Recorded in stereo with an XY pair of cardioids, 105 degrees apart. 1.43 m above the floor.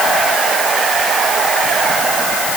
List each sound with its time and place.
Only background noise.